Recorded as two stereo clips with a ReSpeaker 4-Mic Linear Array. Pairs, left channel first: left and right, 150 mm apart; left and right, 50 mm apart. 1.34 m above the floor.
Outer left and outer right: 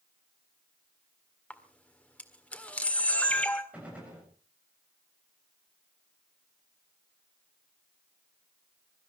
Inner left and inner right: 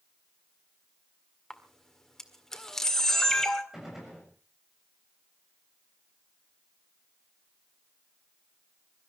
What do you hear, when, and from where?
1.5 s a camera shutter: 10° left (ahead or behind), 1.8 m
3.7 s a gunshot: 10° right (ahead or behind), 7 m